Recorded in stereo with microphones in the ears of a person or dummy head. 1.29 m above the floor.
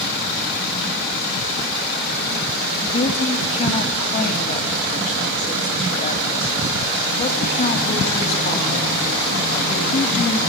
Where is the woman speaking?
40° left (ahead or behind), 2.0 m.